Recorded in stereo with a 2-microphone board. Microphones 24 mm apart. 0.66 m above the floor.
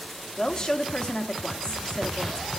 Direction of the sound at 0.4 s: 35° left (ahead or behind).